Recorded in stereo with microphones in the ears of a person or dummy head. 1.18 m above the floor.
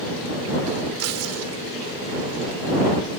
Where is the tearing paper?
85° right.